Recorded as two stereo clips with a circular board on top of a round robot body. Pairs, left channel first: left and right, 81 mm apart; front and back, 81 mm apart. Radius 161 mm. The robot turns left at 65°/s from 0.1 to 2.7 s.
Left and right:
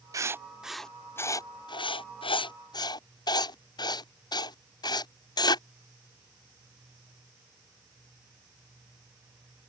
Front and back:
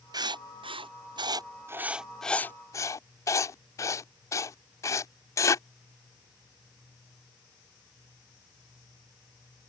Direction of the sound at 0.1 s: 140° right.